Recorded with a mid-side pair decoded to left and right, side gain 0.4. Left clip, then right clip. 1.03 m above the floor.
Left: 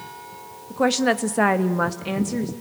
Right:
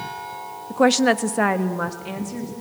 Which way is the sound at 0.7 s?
40° right.